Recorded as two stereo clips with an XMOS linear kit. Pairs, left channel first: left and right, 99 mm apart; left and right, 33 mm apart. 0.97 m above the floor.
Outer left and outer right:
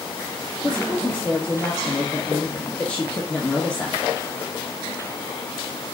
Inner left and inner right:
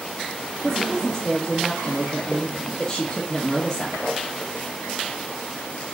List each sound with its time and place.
0.6 s a woman speaking: 15° left (ahead or behind), 1.3 m